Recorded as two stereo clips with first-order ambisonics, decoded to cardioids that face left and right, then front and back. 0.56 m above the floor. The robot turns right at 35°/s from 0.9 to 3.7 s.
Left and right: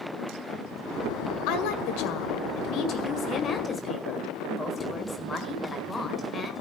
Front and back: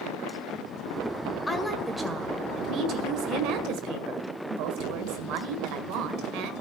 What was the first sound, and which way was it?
A woman speaking, 85° left.